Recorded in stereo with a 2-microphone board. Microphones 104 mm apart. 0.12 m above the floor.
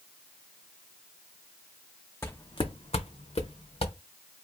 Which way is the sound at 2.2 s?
25° left (ahead or behind).